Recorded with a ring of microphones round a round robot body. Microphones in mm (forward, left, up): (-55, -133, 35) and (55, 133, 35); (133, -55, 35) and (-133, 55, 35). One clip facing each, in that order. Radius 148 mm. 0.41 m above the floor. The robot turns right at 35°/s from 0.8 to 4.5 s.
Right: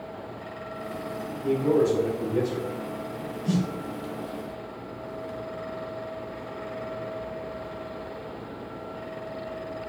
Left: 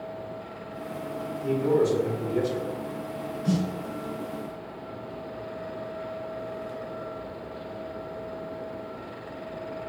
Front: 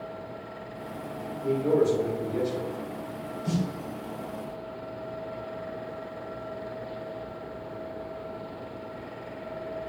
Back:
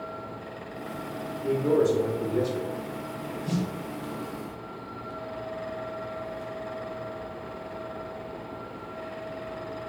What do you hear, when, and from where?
1.4 s a man speaking: 70° left, 1.9 m; by 2.7 s 115° left, 1.9 m
3.5 s a snare drum: 35° left, 2.5 m; by 3.6 s 40° left, 2.5 m